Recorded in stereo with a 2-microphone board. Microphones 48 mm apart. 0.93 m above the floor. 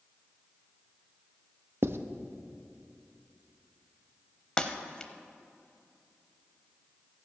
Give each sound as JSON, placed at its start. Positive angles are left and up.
{"t": 1.8, "sound": "writing", "side_deg": -55, "distance_m": 0.5}
{"t": 4.6, "sound": "breaking glass", "side_deg": 20, "distance_m": 0.7}